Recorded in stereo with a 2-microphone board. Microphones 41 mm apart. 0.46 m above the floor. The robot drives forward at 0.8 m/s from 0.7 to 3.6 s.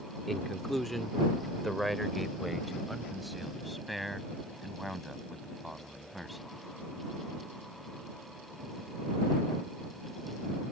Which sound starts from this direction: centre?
A man speaking, at 0.3 s.